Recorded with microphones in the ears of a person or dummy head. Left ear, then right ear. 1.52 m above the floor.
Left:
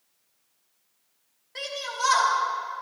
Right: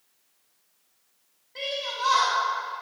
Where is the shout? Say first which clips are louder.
Right 1 dB; 55° left (ahead or behind), 2.5 m.